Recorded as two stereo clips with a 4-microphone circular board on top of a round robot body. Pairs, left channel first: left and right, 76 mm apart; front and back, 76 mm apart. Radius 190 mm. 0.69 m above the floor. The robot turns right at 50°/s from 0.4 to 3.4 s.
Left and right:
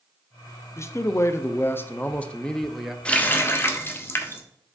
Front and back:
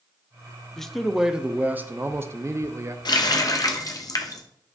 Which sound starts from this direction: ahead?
A running tap, at 3.0 s.